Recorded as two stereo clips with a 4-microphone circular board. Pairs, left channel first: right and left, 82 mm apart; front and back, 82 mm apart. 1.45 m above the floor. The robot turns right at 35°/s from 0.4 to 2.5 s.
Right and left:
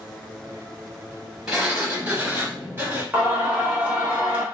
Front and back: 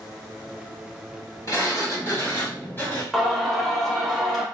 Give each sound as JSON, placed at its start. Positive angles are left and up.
{"t": 1.5, "sound": "a sliding door", "azimuth_deg": 15, "distance_m": 1.6}
{"t": 3.1, "sound": "singing", "azimuth_deg": 95, "distance_m": 0.9}